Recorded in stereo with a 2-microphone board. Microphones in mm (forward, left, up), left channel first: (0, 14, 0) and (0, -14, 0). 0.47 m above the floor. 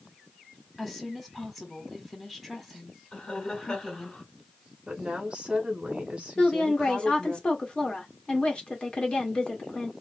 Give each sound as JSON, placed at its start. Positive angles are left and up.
{"t": 0.8, "sound": "a woman speaking", "side_deg": 5, "distance_m": 1.4}
{"t": 3.1, "sound": "laughter", "side_deg": 25, "distance_m": 1.9}
{"t": 4.9, "sound": "a woman speaking", "side_deg": -35, "distance_m": 1.5}
{"t": 6.4, "sound": "a woman speaking", "side_deg": 35, "distance_m": 1.2}